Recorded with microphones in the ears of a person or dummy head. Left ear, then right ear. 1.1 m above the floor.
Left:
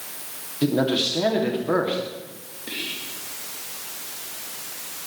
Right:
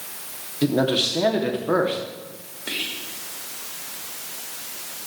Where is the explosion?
I don't hear an explosion.